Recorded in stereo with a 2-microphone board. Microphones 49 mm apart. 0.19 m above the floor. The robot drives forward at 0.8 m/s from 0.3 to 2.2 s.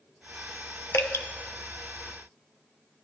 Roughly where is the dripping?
Left.